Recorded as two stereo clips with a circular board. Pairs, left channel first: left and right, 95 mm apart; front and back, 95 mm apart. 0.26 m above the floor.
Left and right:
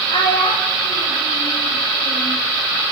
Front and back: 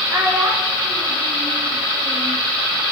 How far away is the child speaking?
About 10 m.